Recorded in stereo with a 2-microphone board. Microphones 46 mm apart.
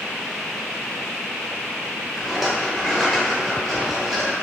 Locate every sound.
2.2 s a rattle: 5° right (ahead or behind), 0.8 m